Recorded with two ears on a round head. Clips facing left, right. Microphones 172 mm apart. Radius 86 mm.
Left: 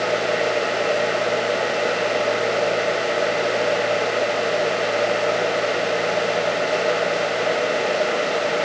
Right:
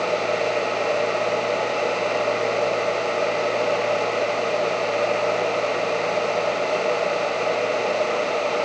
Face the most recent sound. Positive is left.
No sound to turn to.